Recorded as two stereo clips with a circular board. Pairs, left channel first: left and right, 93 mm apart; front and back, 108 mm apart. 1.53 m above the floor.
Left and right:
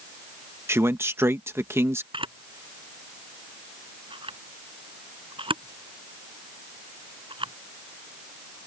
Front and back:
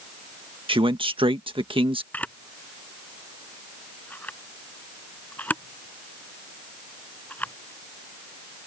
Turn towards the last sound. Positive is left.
turn(degrees=-75)